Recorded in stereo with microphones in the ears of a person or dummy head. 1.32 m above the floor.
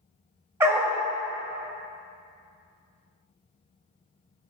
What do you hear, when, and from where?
0.6 s a dog barking: 15° right (ahead or behind), 0.7 m